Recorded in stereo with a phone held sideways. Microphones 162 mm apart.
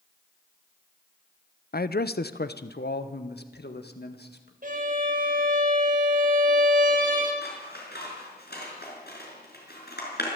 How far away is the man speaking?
About 0.7 m.